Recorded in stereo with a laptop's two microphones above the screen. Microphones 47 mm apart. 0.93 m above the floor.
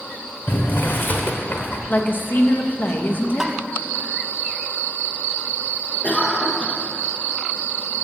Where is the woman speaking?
40° left (ahead or behind), 1.1 m.